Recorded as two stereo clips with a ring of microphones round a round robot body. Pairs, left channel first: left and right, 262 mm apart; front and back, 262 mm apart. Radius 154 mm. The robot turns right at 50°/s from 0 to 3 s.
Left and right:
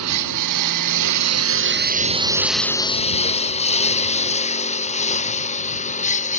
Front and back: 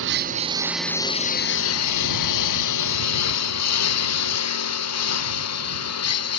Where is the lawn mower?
130° right; by 6.4 s 25° left.